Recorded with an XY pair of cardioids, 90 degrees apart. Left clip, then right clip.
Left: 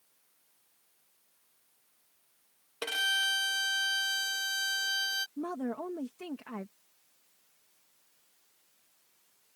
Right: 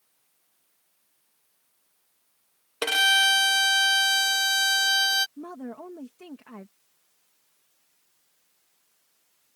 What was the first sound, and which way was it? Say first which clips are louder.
A violin: right 9 dB; 70° right.